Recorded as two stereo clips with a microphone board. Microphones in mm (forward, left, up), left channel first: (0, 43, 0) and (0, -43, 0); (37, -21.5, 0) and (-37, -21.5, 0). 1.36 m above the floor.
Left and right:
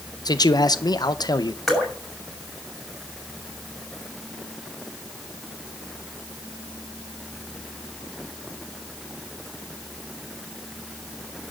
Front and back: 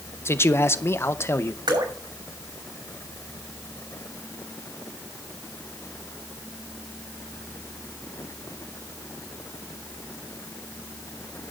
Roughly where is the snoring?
I don't hear snoring.